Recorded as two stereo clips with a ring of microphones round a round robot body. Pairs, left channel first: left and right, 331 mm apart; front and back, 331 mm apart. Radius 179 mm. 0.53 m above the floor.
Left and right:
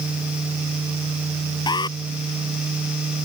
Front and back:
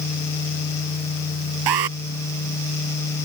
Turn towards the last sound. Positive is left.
turn(degrees=170)